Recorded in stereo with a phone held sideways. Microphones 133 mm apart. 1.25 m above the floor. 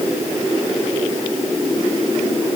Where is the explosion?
No explosion in this recording.